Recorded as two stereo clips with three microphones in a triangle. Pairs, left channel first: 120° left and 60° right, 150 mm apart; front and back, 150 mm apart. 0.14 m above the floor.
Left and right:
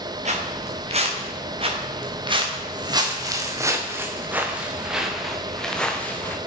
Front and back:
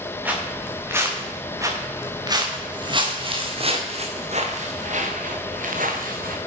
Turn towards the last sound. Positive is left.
turn(degrees=-160)